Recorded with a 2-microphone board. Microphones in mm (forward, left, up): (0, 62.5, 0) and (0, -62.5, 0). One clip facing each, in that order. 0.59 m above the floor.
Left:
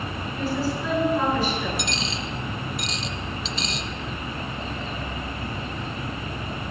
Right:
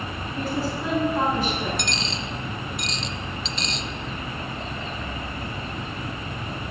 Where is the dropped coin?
Centre (ahead or behind), 0.6 m.